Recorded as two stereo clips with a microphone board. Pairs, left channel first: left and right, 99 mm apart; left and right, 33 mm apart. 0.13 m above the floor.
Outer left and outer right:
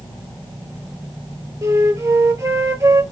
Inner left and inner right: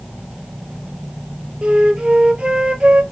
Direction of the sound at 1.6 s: 35° right (ahead or behind).